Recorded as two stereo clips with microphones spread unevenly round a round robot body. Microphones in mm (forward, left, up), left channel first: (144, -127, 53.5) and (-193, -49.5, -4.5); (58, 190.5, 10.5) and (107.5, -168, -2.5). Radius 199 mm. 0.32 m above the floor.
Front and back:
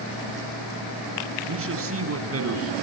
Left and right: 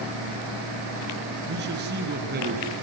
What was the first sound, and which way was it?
A man speaking, 145° right.